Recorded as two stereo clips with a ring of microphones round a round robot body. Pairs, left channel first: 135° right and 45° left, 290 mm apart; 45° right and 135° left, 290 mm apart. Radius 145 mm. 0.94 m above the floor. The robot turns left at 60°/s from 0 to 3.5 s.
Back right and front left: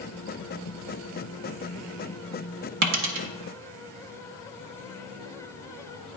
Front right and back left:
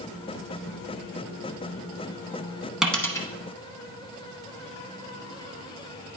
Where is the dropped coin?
50° left, 1.0 m; by 3.3 s 20° left, 1.0 m.